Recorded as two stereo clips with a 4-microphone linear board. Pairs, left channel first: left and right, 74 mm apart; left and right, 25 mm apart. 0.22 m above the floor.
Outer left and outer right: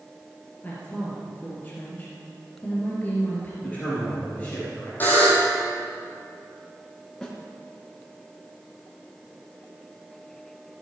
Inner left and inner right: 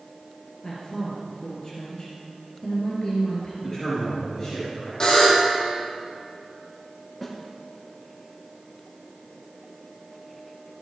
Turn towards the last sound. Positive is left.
turn(degrees=10)  # may be behind; listen again after turning